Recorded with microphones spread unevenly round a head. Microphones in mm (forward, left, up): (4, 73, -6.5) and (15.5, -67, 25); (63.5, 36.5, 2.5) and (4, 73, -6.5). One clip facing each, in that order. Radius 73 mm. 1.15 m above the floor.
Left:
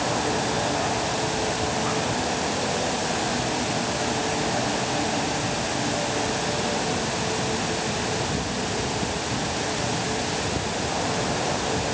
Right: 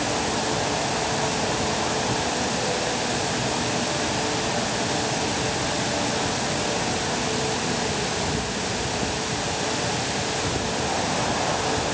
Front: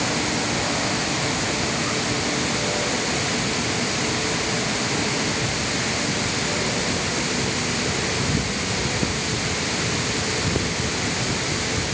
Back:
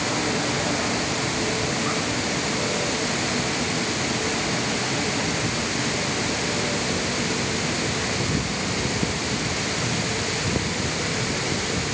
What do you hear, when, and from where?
Only background noise.